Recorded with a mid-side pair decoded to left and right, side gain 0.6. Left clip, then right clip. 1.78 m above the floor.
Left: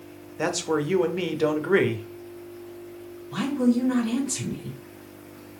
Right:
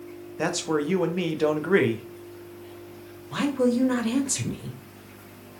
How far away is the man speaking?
About 0.7 m.